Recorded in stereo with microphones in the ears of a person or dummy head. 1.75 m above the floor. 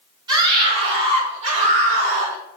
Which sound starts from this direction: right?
A scream, at 0.3 s.